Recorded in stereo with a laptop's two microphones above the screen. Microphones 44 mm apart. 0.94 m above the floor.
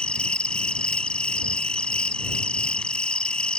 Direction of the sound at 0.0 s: 20° left (ahead or behind).